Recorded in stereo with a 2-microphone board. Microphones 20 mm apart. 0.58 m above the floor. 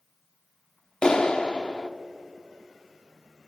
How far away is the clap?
About 0.9 m.